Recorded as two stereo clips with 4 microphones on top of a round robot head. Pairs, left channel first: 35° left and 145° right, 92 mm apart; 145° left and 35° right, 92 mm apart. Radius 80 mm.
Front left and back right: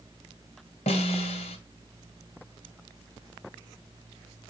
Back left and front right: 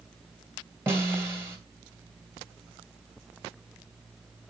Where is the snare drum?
25° left, 1.8 m.